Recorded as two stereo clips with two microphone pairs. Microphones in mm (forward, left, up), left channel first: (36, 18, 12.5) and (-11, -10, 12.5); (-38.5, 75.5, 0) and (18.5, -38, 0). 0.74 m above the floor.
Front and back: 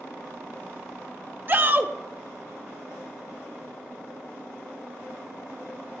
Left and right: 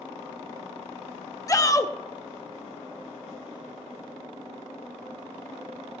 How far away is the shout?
About 0.8 m.